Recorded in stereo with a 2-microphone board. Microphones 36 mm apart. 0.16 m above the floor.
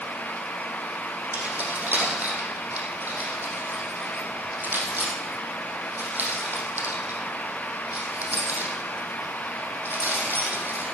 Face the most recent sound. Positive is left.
turn(degrees=-60)  # may be behind; listen again after turning